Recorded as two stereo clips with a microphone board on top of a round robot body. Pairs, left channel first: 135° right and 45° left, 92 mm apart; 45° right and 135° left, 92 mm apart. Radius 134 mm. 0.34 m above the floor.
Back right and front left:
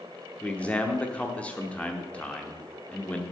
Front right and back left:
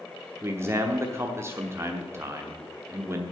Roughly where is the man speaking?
Behind.